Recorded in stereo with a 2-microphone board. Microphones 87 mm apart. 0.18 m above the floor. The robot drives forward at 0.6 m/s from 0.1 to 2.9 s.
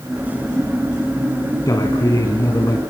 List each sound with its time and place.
1.7 s a man speaking: 45° left (ahead or behind), 1.9 m; by 2.8 s 40° left (ahead or behind), 2 m